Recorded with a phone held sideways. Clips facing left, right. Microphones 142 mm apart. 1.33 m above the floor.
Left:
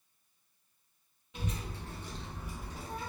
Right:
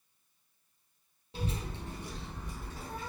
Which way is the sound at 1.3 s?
35° right (ahead or behind).